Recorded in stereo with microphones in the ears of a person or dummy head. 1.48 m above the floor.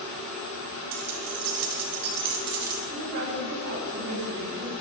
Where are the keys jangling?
55° right (ahead or behind), 1.3 m.